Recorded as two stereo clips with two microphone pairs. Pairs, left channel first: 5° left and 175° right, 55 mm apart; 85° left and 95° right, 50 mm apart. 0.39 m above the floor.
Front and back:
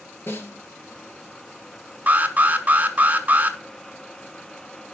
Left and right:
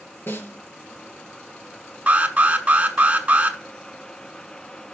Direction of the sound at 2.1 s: 140° right.